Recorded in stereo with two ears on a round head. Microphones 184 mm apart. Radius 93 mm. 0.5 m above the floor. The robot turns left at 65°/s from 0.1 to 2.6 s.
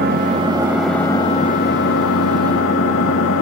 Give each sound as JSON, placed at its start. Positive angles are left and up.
{"t": 0.0, "sound": "an engine running", "azimuth_deg": -130, "distance_m": 1.1}